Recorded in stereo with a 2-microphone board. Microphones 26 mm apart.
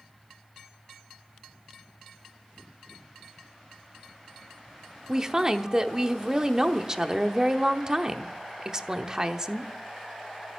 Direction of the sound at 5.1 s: 25° right (ahead or behind).